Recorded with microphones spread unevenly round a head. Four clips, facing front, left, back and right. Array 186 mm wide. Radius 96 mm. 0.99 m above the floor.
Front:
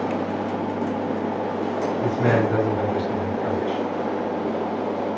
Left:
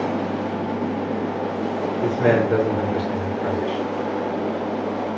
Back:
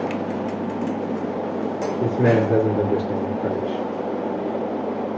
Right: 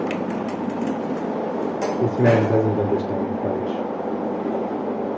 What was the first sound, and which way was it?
A man speaking, 130° right.